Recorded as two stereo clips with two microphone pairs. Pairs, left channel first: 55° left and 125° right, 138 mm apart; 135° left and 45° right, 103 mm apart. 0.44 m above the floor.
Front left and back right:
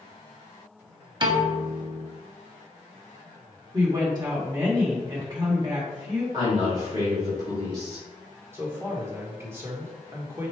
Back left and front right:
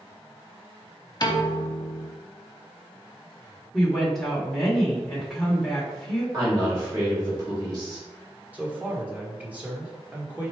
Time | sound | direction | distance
1.2 | a piano | straight behind | 0.8 m
3.7 | a woman speaking | 140° right | 1.3 m
6.3 | a woman speaking | 80° right | 2.0 m
8.5 | a man speaking | 95° right | 1.2 m